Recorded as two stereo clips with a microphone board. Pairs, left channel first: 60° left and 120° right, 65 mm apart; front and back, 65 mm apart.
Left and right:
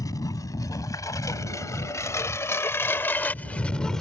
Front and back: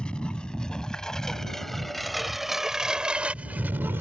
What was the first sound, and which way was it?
A lawn mower, 75° left.